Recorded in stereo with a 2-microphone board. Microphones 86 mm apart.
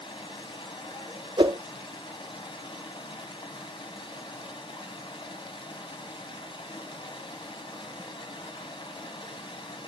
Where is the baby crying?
No baby crying in this recording.